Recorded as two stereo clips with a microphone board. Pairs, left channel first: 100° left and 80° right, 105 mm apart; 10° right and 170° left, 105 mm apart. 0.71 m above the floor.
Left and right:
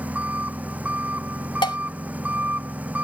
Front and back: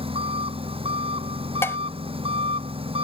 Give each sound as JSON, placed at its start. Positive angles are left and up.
{"t": 0.0, "sound": "an engine running", "azimuth_deg": -155}
{"t": 1.6, "sound": "dishes clattering", "azimuth_deg": 55}